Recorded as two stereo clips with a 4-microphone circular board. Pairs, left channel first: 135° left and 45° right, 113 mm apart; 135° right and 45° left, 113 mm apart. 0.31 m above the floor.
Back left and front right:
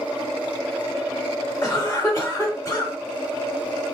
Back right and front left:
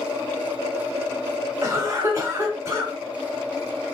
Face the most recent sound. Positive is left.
turn(degrees=90)